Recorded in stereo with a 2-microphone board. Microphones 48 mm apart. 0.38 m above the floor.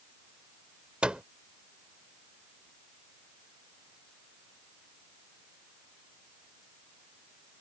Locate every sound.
1.0 s a microwave: 20° right (ahead or behind)